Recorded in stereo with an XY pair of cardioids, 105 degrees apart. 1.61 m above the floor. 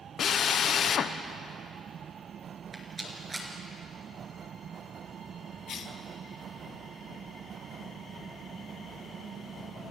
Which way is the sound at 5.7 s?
60° left.